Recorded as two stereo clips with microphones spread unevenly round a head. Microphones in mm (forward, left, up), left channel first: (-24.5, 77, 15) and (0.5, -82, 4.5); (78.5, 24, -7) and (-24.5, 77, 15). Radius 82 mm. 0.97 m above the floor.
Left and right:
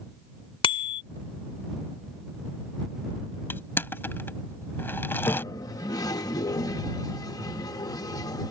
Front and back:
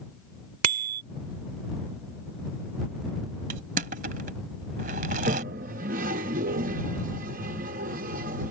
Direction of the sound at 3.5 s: 175° left.